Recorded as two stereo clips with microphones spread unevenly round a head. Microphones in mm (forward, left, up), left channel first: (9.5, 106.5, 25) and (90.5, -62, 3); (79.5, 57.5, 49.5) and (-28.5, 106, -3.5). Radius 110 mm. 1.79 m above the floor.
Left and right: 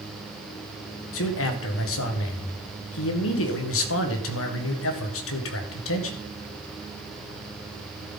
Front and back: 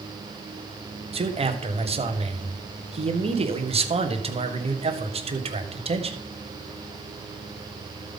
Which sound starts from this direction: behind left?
A man speaking, at 1.1 s.